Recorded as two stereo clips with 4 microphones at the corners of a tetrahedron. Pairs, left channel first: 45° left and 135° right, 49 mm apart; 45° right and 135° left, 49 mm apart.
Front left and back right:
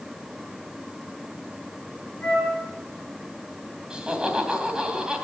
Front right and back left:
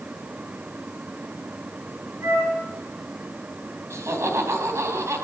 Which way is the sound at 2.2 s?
120° left.